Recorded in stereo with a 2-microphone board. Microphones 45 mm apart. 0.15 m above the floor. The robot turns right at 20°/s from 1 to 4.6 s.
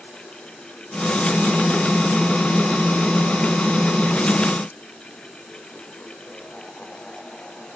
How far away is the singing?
No singing in this recording.